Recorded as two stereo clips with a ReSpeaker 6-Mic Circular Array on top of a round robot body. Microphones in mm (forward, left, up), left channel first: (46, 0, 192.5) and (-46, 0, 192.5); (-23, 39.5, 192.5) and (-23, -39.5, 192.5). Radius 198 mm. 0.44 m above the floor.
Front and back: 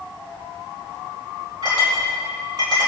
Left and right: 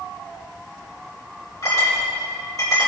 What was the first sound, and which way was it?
A clink, 135° left.